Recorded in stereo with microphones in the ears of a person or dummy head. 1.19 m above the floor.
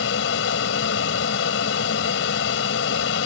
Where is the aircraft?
70° left (ahead or behind).